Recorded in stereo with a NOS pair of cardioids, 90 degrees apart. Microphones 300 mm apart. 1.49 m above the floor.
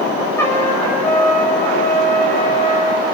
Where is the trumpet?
10° left, 6.5 m.